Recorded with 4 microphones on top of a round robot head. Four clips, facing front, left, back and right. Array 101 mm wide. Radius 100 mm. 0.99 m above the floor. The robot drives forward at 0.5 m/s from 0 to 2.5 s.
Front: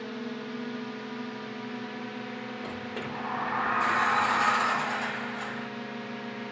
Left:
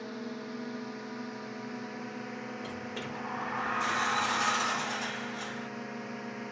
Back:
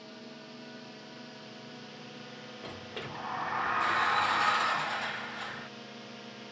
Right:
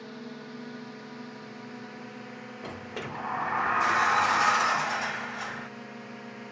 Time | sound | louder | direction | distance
0.0 | a drone | left 2 dB, front 11 dB | 10° left | ?
2.6 | a sliding door | right 1 dB, front 3 dB | 65° right | ?